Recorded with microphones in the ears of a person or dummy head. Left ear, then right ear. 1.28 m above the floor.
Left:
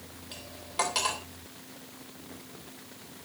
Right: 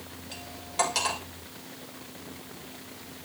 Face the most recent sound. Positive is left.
turn(degrees=10)  # may be behind; listen again after turning